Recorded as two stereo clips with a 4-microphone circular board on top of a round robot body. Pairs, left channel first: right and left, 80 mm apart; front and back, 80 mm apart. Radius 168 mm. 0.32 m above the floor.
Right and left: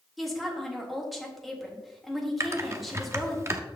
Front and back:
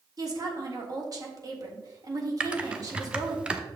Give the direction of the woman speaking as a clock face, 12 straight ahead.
6 o'clock.